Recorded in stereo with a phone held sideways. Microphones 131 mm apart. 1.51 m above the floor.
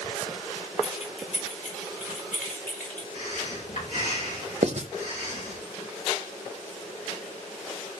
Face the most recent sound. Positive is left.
turn(degrees=-55)  # may be behind; listen again after turning